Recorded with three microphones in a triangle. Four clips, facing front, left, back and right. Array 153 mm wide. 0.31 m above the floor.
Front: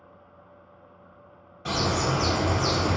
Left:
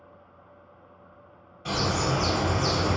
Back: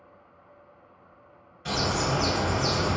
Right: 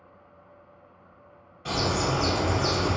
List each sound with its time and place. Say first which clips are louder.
1.6 s a bird: even, front 1 dB; straight ahead, 1.7 m